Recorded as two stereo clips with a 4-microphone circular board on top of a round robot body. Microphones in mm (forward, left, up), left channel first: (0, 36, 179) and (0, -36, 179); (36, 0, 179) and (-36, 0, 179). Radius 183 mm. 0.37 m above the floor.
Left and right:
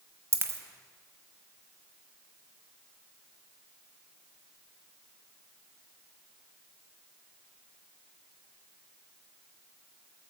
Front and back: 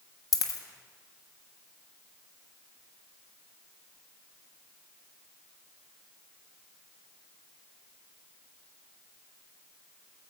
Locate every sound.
0.3 s a dropped coin: 35° right, 1.2 m